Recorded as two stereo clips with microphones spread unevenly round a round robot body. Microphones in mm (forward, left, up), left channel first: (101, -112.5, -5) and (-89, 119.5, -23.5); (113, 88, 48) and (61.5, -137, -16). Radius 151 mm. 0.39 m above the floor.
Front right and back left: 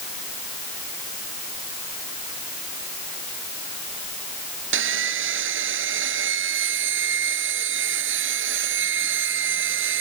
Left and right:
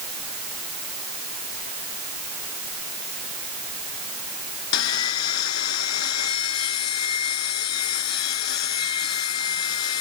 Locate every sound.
4.7 s sawing: 80° left